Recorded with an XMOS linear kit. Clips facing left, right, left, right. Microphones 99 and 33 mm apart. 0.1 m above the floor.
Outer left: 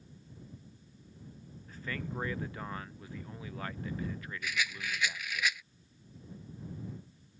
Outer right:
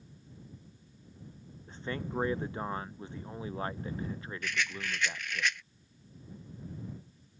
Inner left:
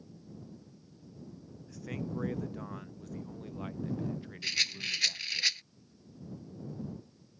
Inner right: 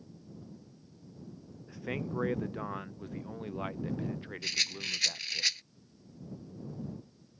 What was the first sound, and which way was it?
A man speaking, 30° right (ahead or behind).